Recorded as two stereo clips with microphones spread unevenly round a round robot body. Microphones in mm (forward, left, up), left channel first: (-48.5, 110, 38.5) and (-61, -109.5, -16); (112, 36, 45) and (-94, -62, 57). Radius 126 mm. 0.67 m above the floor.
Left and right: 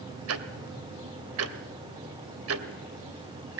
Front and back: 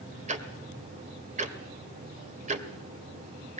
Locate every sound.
0.3 s ticking: 95° right, 2 m